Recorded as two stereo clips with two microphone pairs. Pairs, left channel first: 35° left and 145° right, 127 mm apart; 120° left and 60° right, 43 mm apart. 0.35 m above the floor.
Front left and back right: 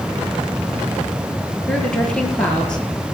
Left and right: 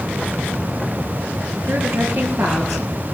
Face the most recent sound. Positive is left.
turn(degrees=-45)